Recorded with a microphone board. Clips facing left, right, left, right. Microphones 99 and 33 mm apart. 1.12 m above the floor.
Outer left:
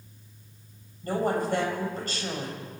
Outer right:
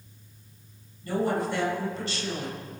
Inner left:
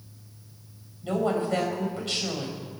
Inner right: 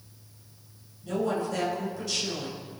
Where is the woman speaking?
45° left (ahead or behind), 5 m.